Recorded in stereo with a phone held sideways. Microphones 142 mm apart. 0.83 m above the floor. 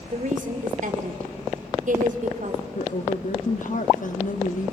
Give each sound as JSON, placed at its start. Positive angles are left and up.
{"t": 0.1, "sound": "a woman speaking", "side_deg": -65, "distance_m": 2.0}
{"t": 2.8, "sound": "a woman speaking", "side_deg": 65, "distance_m": 1.2}